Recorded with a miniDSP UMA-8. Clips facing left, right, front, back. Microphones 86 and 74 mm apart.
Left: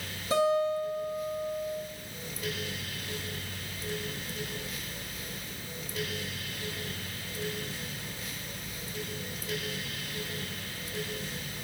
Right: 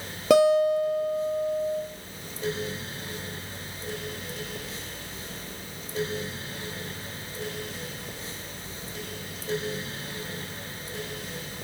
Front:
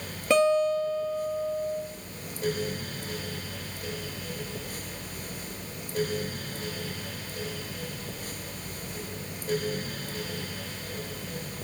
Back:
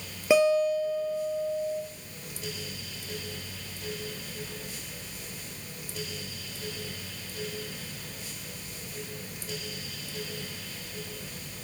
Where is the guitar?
100° right, 1.5 m.